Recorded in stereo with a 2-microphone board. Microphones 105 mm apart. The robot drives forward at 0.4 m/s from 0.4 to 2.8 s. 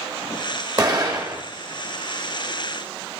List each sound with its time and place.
0.8 s an explosion: 40° right (ahead or behind), 2 m; by 1.4 s 35° right (ahead or behind), 2.5 m